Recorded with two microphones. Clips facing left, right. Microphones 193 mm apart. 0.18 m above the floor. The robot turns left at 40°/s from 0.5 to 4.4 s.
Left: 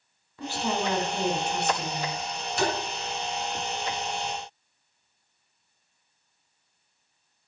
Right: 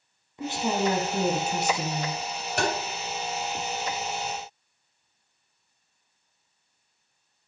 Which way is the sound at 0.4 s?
30° right.